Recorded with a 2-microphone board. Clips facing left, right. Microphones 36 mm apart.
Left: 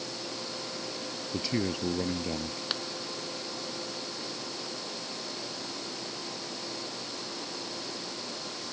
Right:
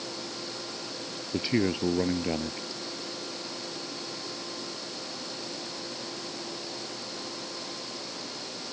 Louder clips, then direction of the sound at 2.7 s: Left 5 dB; 70° left (ahead or behind).